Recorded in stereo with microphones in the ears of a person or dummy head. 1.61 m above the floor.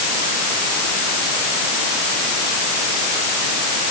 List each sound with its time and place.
Only background noise.